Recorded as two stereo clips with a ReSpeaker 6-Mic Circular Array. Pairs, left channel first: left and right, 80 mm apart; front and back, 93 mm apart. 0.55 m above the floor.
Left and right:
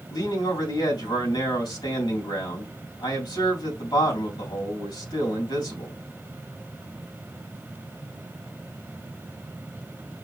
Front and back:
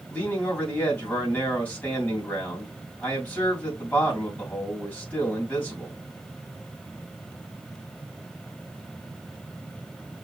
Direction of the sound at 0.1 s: 70° left.